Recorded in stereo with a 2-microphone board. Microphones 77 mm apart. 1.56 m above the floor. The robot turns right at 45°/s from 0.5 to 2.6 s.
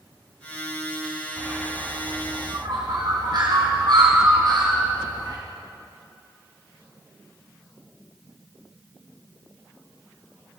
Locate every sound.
1.4 s a bird: 20° right (ahead or behind), 3 m; by 5.4 s 65° right (ahead or behind), 3 m